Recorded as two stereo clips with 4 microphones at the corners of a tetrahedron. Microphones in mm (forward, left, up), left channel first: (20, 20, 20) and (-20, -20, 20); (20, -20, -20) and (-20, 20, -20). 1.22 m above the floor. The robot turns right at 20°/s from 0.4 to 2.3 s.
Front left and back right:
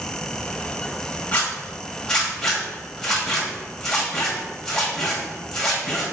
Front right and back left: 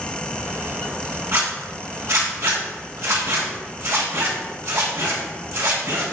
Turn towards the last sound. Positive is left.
turn(degrees=125)